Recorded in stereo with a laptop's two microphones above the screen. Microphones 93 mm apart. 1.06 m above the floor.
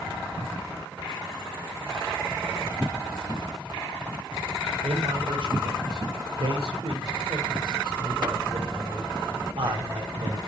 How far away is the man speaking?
About 3.5 m.